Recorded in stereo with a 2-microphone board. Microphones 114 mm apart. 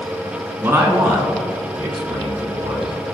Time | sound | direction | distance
0.6 | a man speaking | 25° right (ahead or behind) | 3 m